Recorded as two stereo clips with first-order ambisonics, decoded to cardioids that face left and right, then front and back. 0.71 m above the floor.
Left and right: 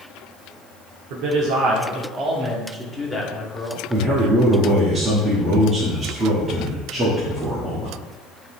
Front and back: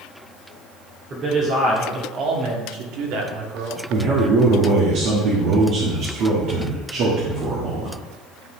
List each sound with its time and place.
1.1 s a man speaking: 115° right, 1.7 m; by 3.8 s 155° left, 1.8 m
3.9 s a man speaking: 160° right, 1.7 m